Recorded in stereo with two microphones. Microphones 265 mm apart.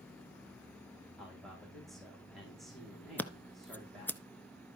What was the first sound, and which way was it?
A man speaking, centre (ahead or behind).